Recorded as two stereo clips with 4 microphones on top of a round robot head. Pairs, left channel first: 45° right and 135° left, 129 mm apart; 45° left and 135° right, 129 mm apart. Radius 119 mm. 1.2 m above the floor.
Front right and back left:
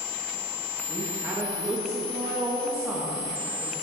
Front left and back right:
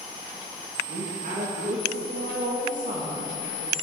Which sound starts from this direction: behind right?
A woman speaking, at 0.9 s.